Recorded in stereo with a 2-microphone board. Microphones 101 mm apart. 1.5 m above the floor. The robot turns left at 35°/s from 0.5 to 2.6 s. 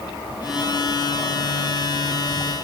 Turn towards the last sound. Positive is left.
No sound to turn to.